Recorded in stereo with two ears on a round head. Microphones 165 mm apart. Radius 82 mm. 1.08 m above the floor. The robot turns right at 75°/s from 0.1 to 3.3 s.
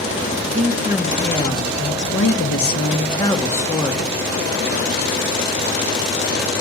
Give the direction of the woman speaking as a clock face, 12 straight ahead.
2 o'clock.